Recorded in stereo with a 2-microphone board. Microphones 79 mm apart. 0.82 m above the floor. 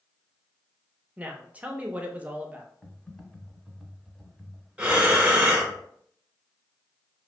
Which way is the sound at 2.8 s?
5° left (ahead or behind).